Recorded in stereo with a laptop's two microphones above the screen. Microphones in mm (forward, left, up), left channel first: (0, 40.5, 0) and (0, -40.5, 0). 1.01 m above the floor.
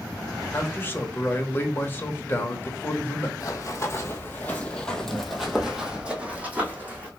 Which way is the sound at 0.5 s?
25° left (ahead or behind).